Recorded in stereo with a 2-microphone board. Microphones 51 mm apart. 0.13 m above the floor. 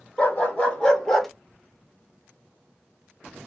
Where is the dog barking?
30° left (ahead or behind), 1.4 m; by 1.3 s 5° left (ahead or behind), 0.6 m.